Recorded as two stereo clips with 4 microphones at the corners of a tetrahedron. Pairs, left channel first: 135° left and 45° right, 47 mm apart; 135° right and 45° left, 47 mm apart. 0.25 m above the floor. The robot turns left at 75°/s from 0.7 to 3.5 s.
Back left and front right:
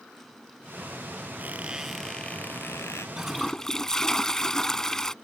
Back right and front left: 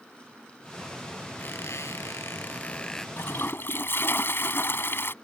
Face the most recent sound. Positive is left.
turn(degrees=-145)